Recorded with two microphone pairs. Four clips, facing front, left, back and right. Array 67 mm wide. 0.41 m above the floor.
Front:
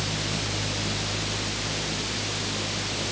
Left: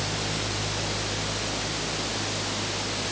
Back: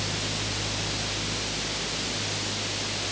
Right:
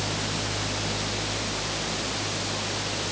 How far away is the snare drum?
I don't hear a snare drum.